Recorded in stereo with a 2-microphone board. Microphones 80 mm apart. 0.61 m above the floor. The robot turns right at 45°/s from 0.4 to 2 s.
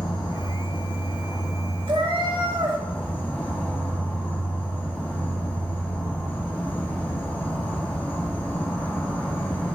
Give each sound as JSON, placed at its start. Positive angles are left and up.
{"t": 0.0, "sound": "an insect", "azimuth_deg": 85, "distance_m": 1.5}
{"t": 1.9, "sound": "a cat meowing", "side_deg": -80, "distance_m": 0.8}